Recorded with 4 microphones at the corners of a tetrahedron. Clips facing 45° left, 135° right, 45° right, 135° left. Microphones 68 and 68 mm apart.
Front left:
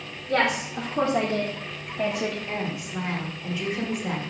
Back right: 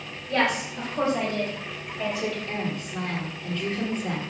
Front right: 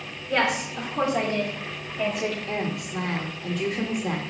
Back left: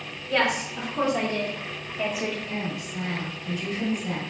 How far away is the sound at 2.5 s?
About 1.2 m.